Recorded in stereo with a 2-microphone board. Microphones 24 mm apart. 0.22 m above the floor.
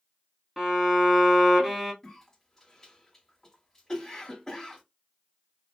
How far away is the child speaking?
I don't hear a child speaking.